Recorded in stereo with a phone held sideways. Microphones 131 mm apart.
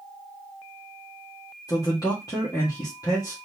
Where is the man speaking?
30° left (ahead or behind), 1.7 m.